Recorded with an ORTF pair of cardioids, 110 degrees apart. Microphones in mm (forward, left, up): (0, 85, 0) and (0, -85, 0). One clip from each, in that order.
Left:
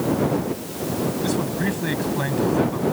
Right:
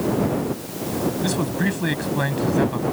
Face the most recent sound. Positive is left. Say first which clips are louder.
# even
turn(degrees=-30)